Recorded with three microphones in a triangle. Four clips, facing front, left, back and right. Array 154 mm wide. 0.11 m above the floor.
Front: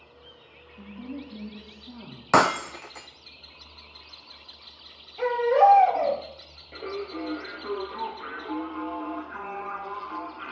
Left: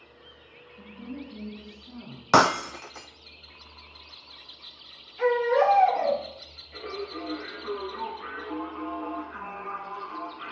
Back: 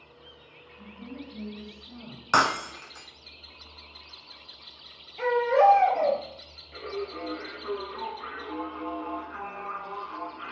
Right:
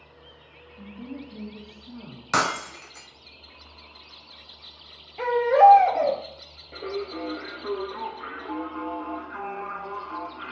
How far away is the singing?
About 2 m.